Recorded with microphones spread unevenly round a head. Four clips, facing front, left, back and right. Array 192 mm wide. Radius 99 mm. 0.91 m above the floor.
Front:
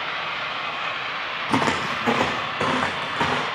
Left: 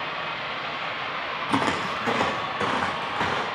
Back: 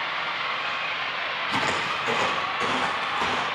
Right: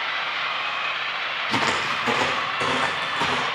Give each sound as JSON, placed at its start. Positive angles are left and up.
{"t": 1.5, "sound": "footsteps", "azimuth_deg": 15, "distance_m": 2.0}